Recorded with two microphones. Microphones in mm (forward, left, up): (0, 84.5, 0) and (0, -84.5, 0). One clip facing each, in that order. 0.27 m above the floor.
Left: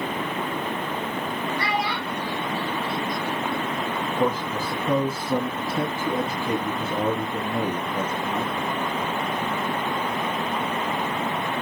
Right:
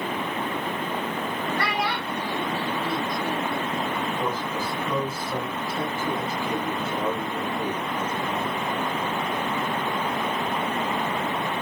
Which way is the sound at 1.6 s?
70° right (ahead or behind).